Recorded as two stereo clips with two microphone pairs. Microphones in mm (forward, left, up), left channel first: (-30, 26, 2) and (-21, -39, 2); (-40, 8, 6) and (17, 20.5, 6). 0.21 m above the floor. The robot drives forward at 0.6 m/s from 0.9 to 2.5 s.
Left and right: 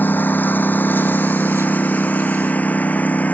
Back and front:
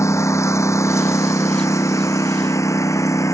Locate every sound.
0.0 s a lawn mower: 160° left; by 3.3 s 165° left